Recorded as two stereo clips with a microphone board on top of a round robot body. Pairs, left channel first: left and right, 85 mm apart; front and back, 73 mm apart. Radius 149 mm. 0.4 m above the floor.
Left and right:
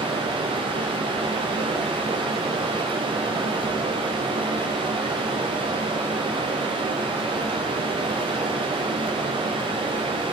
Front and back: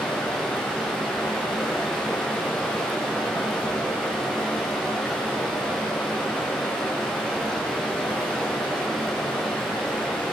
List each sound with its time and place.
0.0 s running water: 90° right, 5 m